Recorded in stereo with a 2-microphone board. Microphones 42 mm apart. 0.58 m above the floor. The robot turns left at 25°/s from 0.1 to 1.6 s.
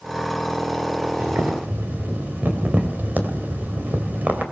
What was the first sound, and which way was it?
Boiling, 55° right (ahead or behind).